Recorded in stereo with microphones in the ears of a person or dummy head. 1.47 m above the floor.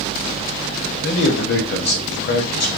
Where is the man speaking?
50° left (ahead or behind), 1.0 m.